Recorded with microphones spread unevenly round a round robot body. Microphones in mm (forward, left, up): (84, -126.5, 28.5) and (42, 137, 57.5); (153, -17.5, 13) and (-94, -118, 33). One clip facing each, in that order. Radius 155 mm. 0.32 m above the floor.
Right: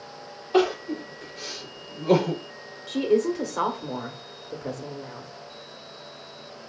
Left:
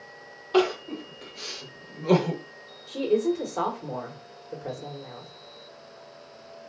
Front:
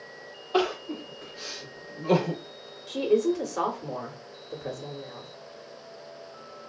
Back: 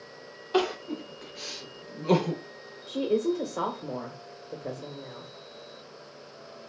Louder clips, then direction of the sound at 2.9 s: Right 2 dB, front 3 dB; 45° right.